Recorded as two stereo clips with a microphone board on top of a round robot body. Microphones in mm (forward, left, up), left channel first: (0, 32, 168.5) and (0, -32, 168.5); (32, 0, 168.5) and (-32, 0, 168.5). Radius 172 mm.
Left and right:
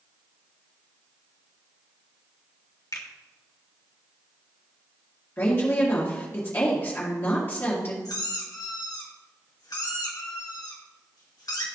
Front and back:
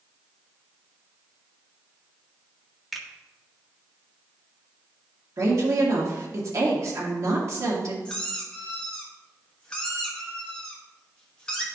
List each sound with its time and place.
2.9 s a finger snap: 90° left, 1.6 m
5.4 s a woman speaking: 145° left, 1.8 m
8.1 s a squeak: 75° left, 1.5 m